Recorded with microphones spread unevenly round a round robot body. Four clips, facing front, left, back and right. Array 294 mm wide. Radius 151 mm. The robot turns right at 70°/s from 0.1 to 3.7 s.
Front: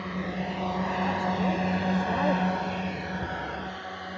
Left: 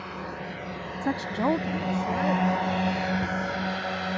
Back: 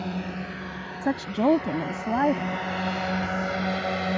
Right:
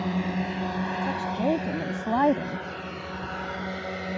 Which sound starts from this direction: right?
A drone, at 0.0 s.